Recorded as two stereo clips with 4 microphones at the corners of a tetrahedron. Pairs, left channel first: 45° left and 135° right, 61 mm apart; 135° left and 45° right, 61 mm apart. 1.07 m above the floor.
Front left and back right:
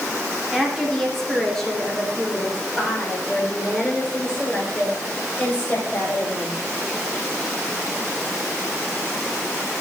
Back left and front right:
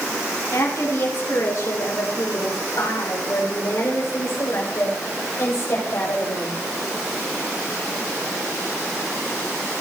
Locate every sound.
0.5 s a woman speaking: 135° left, 3 m; by 6.6 s 110° left, 6 m